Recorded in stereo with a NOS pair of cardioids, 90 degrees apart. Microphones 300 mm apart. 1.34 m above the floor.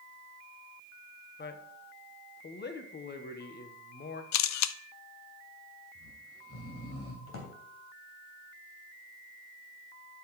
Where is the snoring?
50° left, 3 m.